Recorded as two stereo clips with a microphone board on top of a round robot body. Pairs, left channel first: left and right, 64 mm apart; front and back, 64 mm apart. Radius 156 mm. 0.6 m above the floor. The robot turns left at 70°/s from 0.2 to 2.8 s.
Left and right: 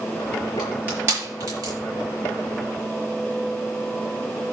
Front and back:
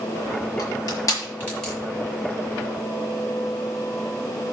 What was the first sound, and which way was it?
Crushing, 10° right.